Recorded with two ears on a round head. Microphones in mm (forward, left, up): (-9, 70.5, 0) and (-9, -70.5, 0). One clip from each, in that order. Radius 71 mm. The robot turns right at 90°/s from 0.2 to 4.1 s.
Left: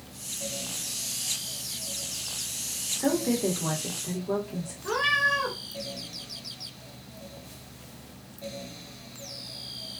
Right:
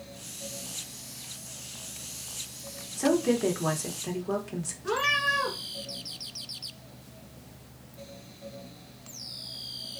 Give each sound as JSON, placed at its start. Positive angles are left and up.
{"t": 3.0, "sound": "a woman speaking", "azimuth_deg": -175, "distance_m": 1.0}
{"t": 4.8, "sound": "a cat meowing", "side_deg": 5, "distance_m": 1.3}